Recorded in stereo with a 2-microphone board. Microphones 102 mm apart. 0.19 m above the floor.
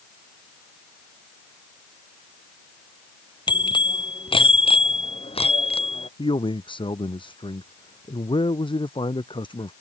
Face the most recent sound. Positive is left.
turn(degrees=55)  # may be behind; listen again after turning